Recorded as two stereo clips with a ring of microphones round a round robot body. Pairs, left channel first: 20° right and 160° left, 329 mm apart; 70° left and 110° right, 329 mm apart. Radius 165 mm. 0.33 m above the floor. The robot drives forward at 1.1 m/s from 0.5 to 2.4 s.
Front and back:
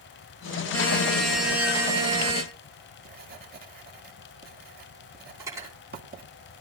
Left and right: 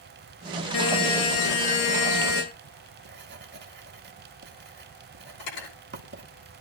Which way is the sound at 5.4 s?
75° left.